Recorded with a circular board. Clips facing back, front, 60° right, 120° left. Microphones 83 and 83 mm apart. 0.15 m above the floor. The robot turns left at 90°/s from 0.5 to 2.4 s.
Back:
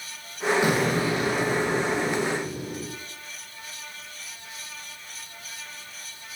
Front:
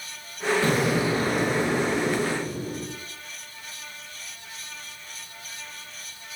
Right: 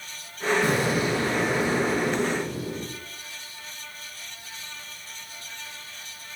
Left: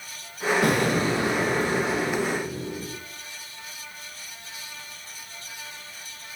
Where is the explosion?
105° left, 6 m; by 2.9 s 55° right, 6 m.